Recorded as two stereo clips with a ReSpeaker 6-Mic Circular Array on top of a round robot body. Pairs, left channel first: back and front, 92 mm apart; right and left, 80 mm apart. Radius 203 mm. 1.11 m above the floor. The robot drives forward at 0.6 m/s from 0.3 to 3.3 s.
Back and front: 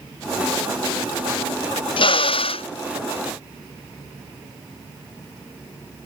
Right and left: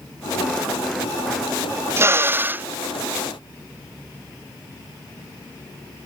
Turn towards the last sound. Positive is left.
turn(degrees=165)